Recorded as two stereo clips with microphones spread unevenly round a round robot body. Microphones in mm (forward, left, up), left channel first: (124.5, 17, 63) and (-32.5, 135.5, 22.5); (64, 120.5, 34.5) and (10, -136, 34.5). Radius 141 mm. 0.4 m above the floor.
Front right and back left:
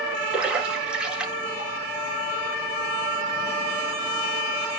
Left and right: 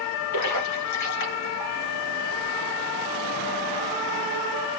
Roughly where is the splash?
Ahead left.